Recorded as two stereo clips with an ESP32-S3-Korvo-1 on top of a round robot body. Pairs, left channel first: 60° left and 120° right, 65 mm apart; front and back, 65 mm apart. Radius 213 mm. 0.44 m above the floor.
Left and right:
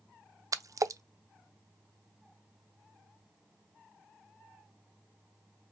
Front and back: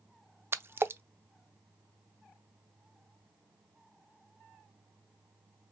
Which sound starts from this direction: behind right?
A splash, at 0.5 s.